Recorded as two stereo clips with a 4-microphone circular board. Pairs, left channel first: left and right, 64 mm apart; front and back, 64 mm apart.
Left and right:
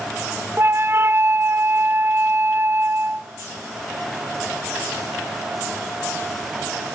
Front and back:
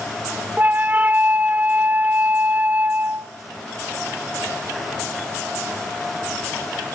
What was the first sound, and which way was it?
A flute, 125° right.